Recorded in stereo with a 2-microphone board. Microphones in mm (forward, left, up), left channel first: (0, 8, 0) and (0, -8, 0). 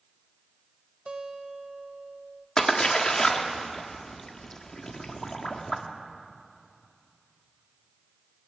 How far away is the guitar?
About 1.0 m.